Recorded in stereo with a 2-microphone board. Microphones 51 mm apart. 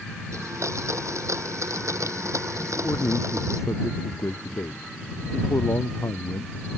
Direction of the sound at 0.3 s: 75° right (ahead or behind).